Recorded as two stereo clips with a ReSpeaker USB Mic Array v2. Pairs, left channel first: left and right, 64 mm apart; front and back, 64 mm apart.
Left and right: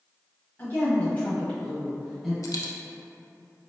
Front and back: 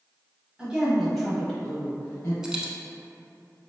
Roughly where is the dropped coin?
Left.